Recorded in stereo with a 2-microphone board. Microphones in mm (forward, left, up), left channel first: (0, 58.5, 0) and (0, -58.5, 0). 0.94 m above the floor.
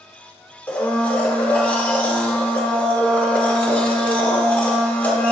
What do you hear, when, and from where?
0.7 s a blender: 15° left (ahead or behind), 1.2 m